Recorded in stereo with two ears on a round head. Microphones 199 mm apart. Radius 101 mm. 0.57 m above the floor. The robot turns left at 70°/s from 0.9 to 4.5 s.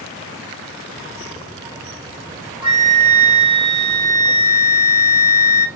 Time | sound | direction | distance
2.6 | a flute | 25° right | 1.0 m